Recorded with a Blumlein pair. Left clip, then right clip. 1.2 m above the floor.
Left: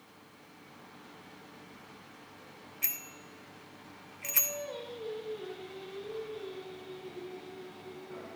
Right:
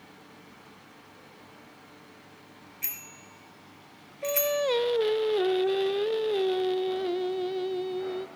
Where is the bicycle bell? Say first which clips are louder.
Left 1 dB; 5° left, 2 m.